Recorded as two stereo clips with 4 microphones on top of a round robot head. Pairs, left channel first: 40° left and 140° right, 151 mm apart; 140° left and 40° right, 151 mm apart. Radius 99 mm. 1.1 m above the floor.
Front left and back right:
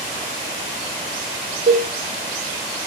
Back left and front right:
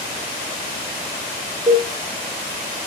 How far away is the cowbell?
About 3 m.